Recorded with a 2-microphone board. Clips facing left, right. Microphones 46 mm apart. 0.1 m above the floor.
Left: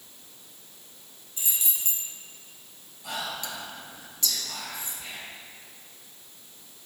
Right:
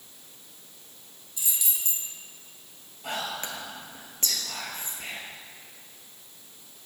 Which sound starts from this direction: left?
Keys jangling, at 1.4 s.